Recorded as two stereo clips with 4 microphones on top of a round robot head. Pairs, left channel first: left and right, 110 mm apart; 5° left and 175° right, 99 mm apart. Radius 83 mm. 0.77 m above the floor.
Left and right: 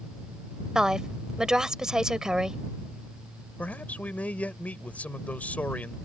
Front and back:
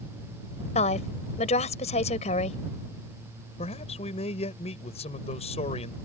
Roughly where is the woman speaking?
Ahead.